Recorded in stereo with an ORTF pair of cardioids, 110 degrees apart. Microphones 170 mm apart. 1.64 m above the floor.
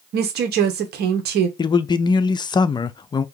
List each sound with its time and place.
0.1 s a woman speaking: 65° right, 1.1 m
1.6 s a man speaking: 25° left, 0.5 m